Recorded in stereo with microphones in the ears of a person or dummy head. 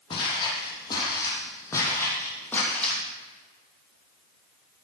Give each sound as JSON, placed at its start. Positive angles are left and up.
{"t": 0.1, "sound": "footsteps", "side_deg": 30, "distance_m": 4.0}